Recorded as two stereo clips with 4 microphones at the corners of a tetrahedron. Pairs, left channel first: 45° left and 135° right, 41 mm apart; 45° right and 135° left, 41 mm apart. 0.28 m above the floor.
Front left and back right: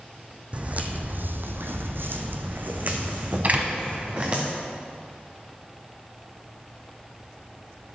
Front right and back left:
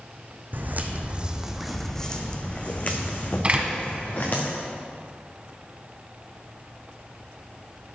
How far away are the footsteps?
About 1.1 m.